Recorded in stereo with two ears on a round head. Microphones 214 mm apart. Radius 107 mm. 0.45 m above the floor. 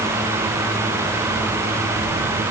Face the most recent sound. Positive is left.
No sound to turn to.